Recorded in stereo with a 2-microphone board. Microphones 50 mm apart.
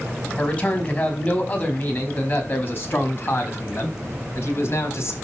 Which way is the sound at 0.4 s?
25° left (ahead or behind).